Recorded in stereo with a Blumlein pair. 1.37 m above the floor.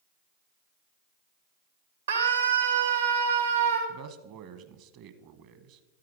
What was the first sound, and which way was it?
A scream, 65° right.